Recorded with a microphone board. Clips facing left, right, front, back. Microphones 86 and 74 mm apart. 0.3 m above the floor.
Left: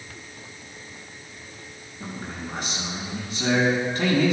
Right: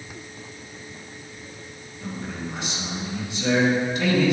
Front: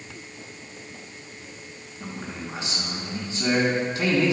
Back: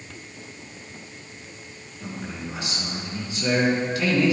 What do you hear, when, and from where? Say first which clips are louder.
2.0 s a man speaking: right 2 dB, back 1 dB; 50° left, 3.5 m